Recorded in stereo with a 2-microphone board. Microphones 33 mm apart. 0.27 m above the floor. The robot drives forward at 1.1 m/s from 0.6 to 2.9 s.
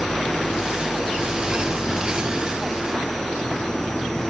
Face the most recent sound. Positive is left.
turn(degrees=20)  # may be behind; listen again after turning